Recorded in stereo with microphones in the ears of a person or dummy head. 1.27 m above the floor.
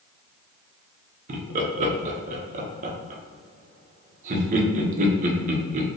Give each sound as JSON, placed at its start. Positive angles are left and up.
{"t": 1.3, "sound": "laughter", "side_deg": -45, "distance_m": 0.7}